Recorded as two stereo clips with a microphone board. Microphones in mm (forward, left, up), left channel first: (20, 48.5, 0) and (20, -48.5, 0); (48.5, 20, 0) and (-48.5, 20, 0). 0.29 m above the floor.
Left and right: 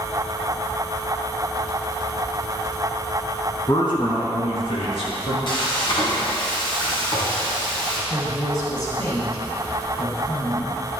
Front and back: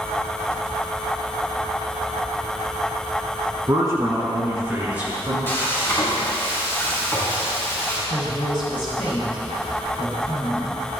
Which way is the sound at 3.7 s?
125° left.